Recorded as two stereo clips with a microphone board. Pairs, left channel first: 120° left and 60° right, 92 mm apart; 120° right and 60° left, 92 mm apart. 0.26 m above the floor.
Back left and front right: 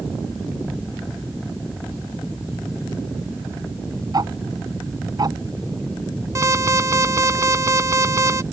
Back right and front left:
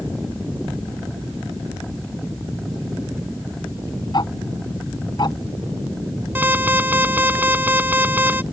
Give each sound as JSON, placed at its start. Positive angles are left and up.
{"t": 4.1, "sound": "ticking", "azimuth_deg": -95}
{"t": 6.3, "sound": "an alarm", "azimuth_deg": -5}